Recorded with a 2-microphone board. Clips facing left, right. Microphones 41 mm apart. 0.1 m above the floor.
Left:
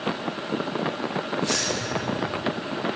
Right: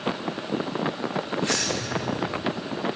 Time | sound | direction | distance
1.4 | keys jangling | 45° right (ahead or behind) | 5.5 m